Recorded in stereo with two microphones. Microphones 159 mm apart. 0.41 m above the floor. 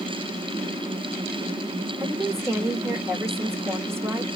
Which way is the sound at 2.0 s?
15° right (ahead or behind).